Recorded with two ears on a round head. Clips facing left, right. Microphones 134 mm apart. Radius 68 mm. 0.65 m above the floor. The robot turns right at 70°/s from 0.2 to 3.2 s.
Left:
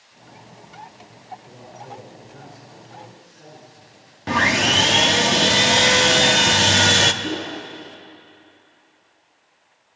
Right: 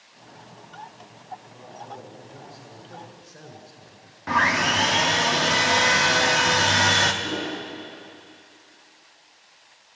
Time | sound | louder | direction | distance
1.5 | a man speaking | left 1 dB | 115° left | 7 m
4.3 | sawing | left 2 dB | 30° left (ahead or behind) | 0.8 m
7.2 | a whoosh | left 2 dB | 30° left (ahead or behind) | 6 m